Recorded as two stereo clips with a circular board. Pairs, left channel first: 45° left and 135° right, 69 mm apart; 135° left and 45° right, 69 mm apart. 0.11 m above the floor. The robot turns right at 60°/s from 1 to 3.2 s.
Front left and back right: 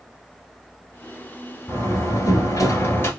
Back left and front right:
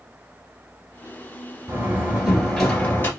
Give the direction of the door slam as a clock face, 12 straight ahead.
12 o'clock.